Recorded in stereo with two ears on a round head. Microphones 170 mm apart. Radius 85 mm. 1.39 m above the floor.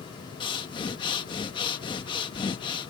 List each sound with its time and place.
0.4 s breathing: 25° left (ahead or behind)